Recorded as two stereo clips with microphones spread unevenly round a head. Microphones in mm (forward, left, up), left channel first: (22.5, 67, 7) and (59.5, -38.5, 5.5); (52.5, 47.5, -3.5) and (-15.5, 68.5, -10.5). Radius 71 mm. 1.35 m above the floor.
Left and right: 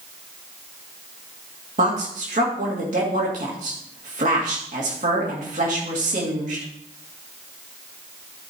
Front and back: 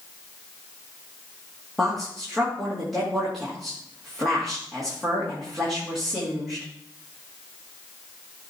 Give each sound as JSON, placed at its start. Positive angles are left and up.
{"t": 1.8, "sound": "a woman speaking", "azimuth_deg": -105, "distance_m": 2.5}